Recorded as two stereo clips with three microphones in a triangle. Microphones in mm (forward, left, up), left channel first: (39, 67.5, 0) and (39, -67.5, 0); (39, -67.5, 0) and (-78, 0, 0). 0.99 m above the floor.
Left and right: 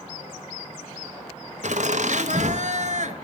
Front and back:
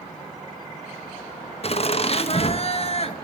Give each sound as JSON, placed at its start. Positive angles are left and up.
{"t": 1.6, "sound": "laughter", "azimuth_deg": -70, "distance_m": 0.9}